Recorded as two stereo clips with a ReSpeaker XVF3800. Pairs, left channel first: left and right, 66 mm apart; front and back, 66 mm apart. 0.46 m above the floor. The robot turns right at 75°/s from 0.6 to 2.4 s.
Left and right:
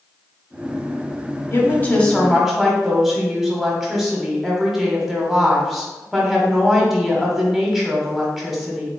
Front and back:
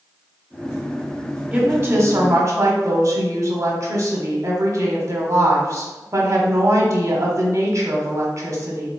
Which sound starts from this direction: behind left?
A woman speaking, at 1.5 s.